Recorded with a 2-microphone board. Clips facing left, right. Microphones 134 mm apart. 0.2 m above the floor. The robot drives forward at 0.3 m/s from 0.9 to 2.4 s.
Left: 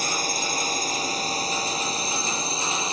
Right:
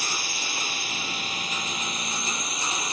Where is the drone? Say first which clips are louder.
Left 6 dB; 40° left (ahead or behind); by 2.9 s 30° left (ahead or behind).